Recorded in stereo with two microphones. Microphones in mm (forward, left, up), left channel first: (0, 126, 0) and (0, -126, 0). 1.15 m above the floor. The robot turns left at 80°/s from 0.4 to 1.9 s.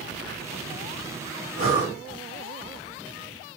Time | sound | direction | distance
1.6 | breathing | 65° left (ahead or behind) | 1.3 m